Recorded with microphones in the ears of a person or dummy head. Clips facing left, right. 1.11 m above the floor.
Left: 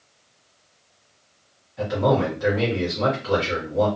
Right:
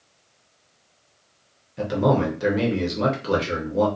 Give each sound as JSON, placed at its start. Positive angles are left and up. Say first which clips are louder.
{"t": 1.8, "sound": "a man speaking", "louder": "even", "side_deg": -45, "distance_m": 0.8}